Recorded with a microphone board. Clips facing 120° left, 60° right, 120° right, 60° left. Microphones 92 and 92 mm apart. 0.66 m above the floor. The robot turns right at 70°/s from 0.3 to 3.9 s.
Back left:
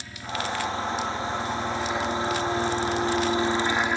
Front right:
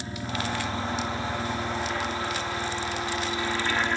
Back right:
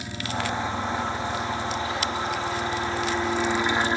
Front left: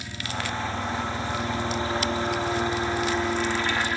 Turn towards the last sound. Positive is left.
turn(degrees=-165)